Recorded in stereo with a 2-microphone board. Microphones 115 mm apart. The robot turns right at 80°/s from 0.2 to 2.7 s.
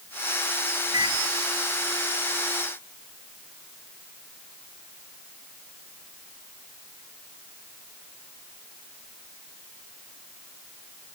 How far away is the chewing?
I don't hear chewing.